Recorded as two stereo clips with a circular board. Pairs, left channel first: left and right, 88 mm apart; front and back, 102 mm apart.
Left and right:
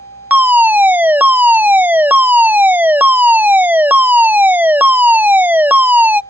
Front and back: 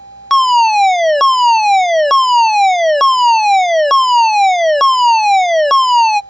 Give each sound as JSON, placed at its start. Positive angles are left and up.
{"t": 0.3, "sound": "a fire alarm", "azimuth_deg": -85}